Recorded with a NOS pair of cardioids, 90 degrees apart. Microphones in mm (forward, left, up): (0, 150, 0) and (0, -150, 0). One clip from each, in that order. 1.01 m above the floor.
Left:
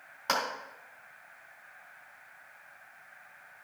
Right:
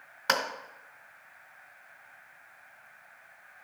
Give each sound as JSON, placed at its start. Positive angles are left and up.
{"t": 0.3, "sound": "a clap", "azimuth_deg": -35, "distance_m": 2.5}